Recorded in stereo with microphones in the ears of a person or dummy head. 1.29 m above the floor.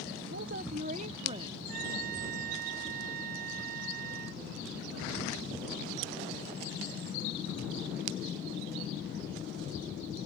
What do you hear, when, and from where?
0.3 s a woman speaking: 60° right (ahead or behind); by 1.6 s 35° right (ahead or behind)
1.7 s a trumpet: 55° right (ahead or behind)